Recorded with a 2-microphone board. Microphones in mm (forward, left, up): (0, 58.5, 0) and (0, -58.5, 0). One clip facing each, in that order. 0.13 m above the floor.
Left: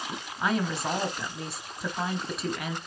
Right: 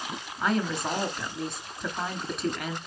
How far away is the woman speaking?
About 1.6 m.